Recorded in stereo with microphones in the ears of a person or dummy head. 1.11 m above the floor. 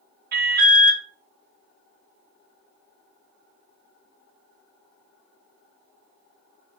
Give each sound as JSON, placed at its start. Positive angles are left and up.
{"t": 0.3, "sound": "an alarm", "side_deg": -45, "distance_m": 0.7}